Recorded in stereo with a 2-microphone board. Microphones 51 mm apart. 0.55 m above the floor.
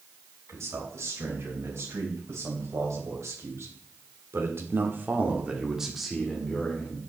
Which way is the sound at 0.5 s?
65° right (ahead or behind).